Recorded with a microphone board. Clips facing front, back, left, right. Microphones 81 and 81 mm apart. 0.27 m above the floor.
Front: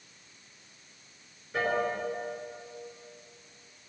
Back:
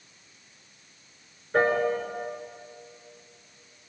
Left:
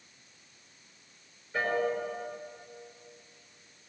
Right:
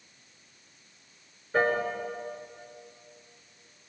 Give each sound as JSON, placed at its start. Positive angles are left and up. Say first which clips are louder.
{"t": 1.5, "sound": "a piano", "louder": "back 6 dB, right 4 dB", "azimuth_deg": -130, "distance_m": 4.5}